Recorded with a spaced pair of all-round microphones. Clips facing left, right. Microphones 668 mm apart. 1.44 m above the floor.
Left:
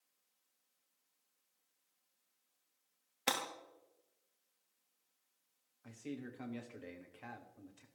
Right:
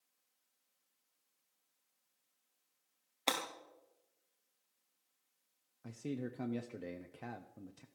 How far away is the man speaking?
About 0.8 m.